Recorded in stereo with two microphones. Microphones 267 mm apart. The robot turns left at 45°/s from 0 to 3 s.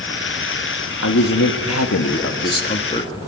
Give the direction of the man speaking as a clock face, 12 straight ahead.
8 o'clock.